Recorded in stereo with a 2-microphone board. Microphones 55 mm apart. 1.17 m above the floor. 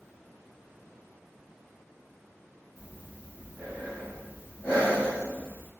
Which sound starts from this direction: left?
Breathing, at 2.8 s.